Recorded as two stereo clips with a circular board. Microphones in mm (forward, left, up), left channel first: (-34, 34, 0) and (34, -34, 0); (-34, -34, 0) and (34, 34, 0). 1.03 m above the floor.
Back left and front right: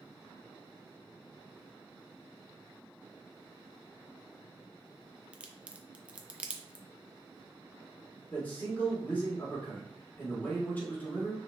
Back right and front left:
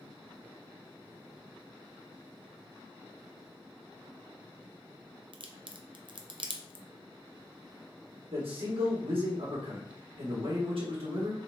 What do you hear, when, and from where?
5.3 s a crack: 30° left, 0.5 m
8.3 s a man speaking: 65° left, 1.8 m